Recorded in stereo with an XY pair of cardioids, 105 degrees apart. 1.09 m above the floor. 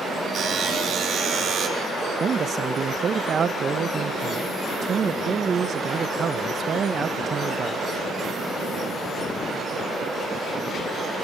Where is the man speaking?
45° right, 0.5 m.